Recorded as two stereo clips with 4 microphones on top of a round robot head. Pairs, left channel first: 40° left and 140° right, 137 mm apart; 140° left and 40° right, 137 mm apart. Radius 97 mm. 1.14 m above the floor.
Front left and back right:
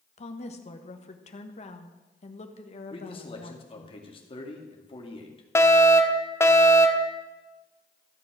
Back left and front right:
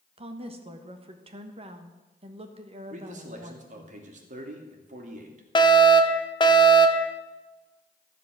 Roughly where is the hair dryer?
I don't hear a hair dryer.